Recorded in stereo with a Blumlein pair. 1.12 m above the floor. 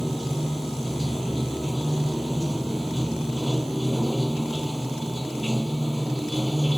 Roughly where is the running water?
Ahead.